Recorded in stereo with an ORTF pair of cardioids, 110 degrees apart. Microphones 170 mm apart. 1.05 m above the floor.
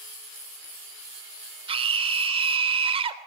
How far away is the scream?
About 3.5 m.